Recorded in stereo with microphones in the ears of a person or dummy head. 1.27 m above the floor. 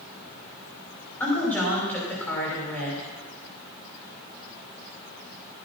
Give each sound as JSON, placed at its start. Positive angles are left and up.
{"t": 1.2, "sound": "a woman speaking", "side_deg": 10, "distance_m": 5.0}